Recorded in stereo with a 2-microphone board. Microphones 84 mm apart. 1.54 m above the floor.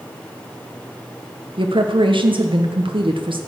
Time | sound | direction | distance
1.6 | a woman speaking | 80° right | 1.2 m